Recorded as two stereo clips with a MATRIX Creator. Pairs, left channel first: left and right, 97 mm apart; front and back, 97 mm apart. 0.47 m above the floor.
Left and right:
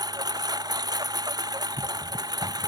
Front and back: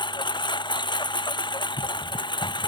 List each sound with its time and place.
0.0 s a lawn mower: 40° right